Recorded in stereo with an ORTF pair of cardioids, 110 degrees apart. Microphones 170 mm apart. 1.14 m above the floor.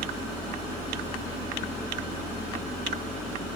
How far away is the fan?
About 1.7 m.